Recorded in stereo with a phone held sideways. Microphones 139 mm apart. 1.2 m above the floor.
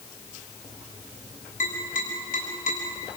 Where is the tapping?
75° left (ahead or behind), 7.5 m.